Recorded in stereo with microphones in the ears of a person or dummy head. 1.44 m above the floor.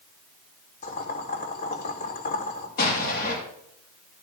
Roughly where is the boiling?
Left.